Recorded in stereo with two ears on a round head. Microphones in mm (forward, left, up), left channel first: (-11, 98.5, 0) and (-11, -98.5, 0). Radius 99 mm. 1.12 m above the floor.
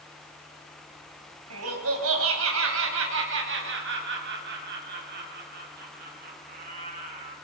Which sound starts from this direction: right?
Laughter, at 1.5 s.